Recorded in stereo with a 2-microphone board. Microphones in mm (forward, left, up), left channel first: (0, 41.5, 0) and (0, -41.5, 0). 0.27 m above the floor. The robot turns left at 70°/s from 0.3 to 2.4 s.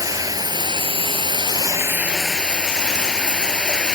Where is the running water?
45° right; by 4.0 s 170° left.